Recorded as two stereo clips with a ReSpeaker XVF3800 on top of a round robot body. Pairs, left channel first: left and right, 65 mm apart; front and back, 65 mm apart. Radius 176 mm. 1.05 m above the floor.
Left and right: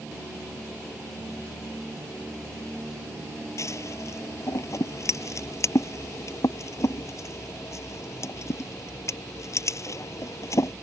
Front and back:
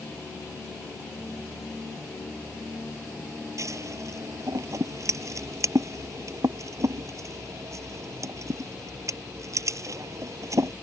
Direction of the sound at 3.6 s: 135° left.